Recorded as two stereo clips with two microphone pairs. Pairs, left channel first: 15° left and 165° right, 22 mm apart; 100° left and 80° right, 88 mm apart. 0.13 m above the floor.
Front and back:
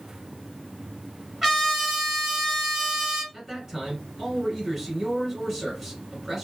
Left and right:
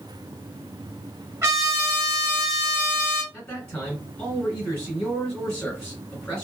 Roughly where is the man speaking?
Behind left.